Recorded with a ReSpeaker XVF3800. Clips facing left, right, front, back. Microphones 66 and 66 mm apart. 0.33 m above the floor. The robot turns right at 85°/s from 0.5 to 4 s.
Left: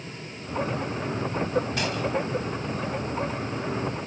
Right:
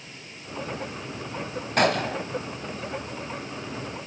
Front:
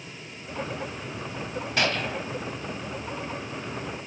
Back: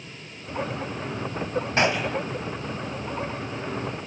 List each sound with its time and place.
1.8 s a gunshot: 120° right, 0.8 m; by 2.2 s 75° right, 0.8 m